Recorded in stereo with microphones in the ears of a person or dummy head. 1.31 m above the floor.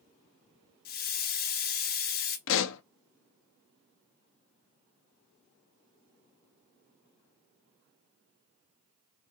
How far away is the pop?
About 0.6 m.